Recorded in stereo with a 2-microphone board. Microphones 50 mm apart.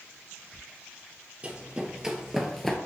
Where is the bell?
No bell in this recording.